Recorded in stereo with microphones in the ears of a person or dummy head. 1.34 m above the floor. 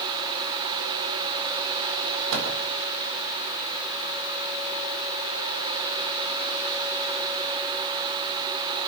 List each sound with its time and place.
2.3 s a microwave: 75° right (ahead or behind), 4 m